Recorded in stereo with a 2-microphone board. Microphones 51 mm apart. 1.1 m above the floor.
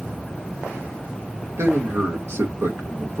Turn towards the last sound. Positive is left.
turn(degrees=-60)  # may be behind; listen again after turning